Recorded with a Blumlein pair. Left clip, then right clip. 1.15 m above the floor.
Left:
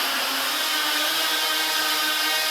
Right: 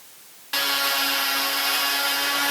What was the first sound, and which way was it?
Only background noise.